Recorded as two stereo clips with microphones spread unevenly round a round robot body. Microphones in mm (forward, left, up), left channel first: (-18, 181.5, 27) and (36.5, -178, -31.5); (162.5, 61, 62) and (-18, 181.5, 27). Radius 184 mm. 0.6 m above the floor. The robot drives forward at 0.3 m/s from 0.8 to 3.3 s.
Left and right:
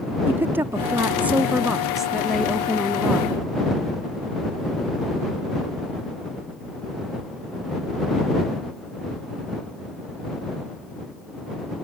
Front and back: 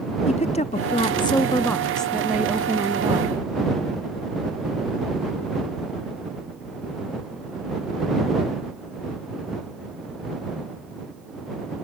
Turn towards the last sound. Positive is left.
turn(degrees=-165)